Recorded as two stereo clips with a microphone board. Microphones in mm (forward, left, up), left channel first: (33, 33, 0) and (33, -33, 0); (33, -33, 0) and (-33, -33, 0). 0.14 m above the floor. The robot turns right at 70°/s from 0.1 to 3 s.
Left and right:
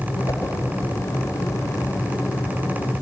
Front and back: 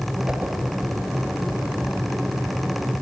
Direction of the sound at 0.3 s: 105° left.